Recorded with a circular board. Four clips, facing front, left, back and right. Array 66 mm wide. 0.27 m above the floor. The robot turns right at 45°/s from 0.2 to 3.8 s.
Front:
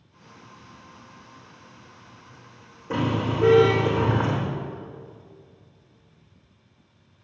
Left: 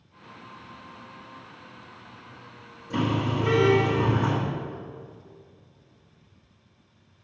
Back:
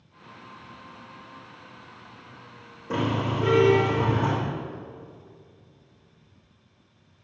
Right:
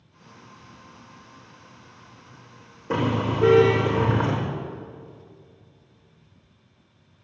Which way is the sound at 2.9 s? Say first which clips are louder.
Right 2 dB, front 1 dB; 100° right.